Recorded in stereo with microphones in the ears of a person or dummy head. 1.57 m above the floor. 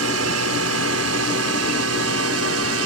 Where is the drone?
75° right (ahead or behind).